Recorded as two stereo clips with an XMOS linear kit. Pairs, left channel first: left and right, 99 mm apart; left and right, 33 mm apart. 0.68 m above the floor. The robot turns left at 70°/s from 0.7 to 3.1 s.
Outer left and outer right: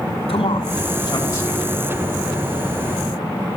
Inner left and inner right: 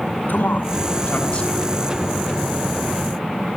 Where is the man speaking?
75° left (ahead or behind), 6 m; by 1.6 s 10° left (ahead or behind), 6 m.